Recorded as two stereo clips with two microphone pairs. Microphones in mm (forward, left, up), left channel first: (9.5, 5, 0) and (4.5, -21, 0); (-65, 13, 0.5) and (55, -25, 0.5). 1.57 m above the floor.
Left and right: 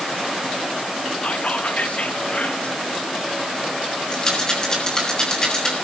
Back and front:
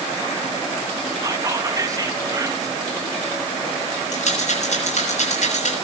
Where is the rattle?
145° left, 8 m.